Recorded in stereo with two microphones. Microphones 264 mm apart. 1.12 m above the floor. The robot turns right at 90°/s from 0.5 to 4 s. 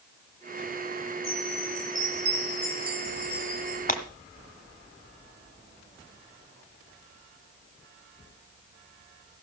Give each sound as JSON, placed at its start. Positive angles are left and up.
{"t": 1.2, "sound": "a chime", "azimuth_deg": -165, "distance_m": 5.5}
{"t": 3.9, "sound": "breaking glass", "side_deg": 30, "distance_m": 1.0}